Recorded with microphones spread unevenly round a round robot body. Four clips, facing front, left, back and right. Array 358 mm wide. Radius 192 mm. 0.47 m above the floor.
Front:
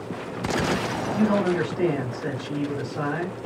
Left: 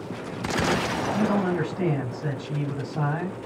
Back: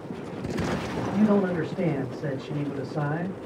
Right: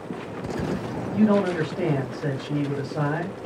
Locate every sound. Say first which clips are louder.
1.1 s a man speaking: right 5 dB, front 1 dB; 110° right, 2.0 m